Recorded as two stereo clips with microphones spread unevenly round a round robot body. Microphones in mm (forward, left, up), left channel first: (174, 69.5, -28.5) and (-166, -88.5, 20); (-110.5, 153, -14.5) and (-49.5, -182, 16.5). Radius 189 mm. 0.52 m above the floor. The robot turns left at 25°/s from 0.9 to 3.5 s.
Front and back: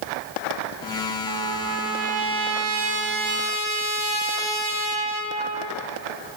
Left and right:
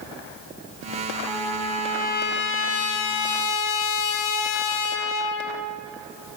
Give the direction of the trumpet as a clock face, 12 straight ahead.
6 o'clock.